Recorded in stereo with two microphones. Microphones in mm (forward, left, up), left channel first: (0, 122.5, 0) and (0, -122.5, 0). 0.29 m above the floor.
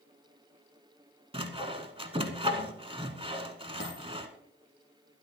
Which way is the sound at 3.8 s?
55° left (ahead or behind).